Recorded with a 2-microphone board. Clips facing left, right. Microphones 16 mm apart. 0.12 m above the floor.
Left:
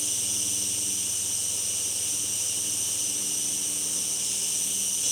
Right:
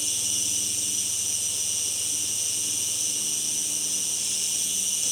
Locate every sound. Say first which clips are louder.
0.0 s an insect: right 2 dB; 60° right (ahead or behind), 3.5 m